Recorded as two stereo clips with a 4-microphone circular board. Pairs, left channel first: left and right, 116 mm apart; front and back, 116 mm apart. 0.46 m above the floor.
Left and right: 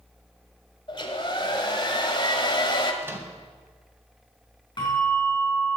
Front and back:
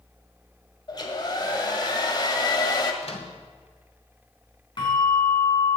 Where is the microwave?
20° right, 2 m.